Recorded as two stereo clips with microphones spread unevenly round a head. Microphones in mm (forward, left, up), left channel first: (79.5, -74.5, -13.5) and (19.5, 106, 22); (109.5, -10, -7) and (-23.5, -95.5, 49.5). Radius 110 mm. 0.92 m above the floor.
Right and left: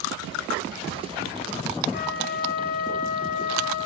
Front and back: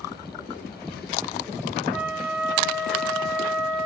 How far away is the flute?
About 5.5 m.